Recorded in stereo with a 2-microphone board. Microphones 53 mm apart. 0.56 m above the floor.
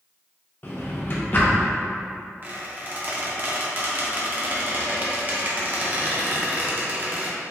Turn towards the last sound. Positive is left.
turn(degrees=-35)  # may be behind; listen again after turning